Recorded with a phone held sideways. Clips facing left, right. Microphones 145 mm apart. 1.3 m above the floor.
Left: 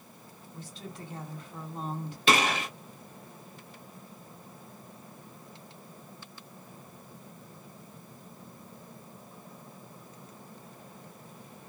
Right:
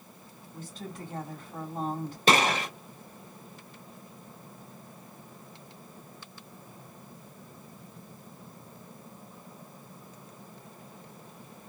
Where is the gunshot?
40° right (ahead or behind), 2 m.